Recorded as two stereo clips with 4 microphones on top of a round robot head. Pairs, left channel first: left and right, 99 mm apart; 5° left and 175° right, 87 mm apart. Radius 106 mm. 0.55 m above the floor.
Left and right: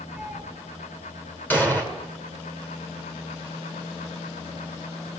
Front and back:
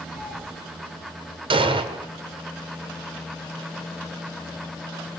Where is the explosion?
165° left, 2.5 m.